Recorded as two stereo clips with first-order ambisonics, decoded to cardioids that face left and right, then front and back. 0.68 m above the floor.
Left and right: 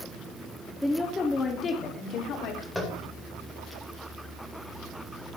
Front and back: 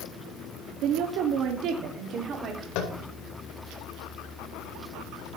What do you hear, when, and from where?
0.8 s a woman speaking: 175° left, 1.1 m; by 2.6 s 120° left, 1.6 m
2.8 s tapping: 5° left, 2.5 m